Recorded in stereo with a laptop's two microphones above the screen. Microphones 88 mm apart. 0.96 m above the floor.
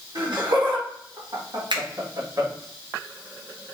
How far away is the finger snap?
About 0.7 m.